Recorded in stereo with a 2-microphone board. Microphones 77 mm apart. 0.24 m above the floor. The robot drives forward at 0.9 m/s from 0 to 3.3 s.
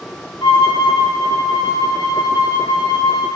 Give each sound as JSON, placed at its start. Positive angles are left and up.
{"t": 0.4, "sound": "a violin", "side_deg": 75, "distance_m": 5.5}